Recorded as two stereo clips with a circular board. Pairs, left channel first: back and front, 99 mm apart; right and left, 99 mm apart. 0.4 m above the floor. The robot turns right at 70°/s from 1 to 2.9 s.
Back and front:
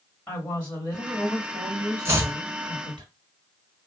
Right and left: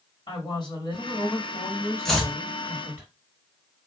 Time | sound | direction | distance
0.3 | a woman speaking | 110° right | 1.7 m
2.0 | chopping | 10° right | 1.0 m